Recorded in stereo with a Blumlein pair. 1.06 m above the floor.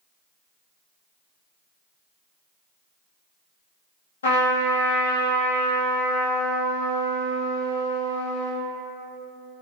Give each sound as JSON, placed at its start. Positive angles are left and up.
{"t": 4.2, "sound": "a trumpet", "azimuth_deg": 65, "distance_m": 0.8}